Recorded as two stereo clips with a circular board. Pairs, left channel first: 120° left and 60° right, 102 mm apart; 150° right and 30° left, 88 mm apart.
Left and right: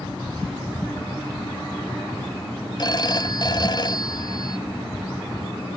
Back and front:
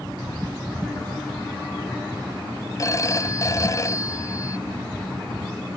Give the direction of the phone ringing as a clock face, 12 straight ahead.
7 o'clock.